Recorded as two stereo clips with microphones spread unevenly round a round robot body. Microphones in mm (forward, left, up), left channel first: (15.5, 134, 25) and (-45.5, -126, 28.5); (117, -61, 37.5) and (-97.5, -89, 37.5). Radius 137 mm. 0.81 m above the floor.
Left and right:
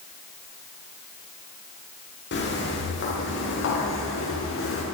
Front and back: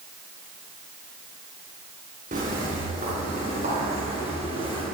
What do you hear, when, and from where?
2.3 s footsteps: 125° left, 10 m; by 4.8 s 115° left, 8 m